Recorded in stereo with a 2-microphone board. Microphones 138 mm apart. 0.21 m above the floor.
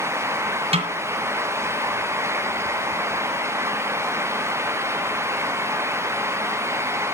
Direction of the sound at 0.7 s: 45° right (ahead or behind).